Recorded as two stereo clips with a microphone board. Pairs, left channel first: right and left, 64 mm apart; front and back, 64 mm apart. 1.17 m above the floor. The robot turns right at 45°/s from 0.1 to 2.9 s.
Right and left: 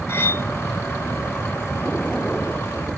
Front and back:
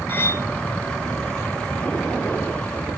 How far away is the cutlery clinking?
About 1.0 m.